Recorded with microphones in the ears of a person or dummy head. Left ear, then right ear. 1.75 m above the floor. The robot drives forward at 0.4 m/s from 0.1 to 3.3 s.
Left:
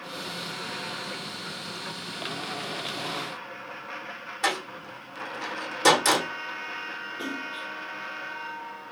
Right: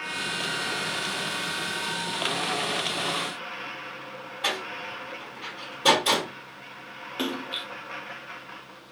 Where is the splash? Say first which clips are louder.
Right 7 dB; 40° right (ahead or behind), 0.5 m.